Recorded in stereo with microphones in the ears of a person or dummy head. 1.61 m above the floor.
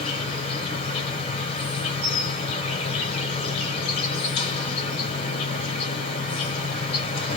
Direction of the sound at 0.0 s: 30° left (ahead or behind).